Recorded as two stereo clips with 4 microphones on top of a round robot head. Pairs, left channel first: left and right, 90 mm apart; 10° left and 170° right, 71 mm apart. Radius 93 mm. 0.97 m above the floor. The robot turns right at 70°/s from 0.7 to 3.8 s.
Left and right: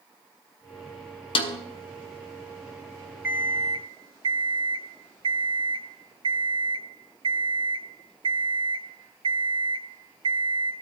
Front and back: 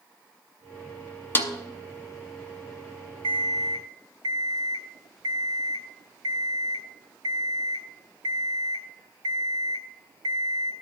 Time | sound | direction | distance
1.4 | a snare drum | 70° left | 1.0 m
3.2 | an alarm clock | 170° right | 0.8 m